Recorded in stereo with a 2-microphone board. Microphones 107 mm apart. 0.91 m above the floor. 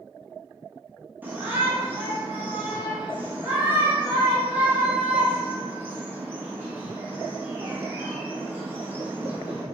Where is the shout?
15° right (ahead or behind), 0.8 m.